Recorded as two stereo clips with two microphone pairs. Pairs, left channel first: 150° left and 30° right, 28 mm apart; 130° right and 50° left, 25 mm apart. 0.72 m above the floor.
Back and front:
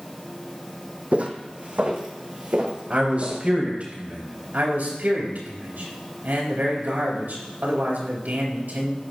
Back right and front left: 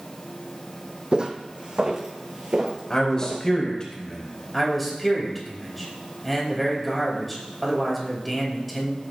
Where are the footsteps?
Straight ahead, 1.5 m; by 3.5 s 5° right, 3.5 m.